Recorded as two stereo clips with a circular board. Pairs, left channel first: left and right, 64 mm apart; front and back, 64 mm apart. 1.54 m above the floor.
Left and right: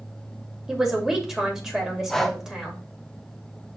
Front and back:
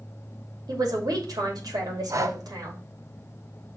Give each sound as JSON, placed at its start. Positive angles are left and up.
{"t": 0.7, "sound": "a man speaking", "azimuth_deg": -170, "distance_m": 2.5}
{"t": 2.1, "sound": "breathing", "azimuth_deg": 175, "distance_m": 0.7}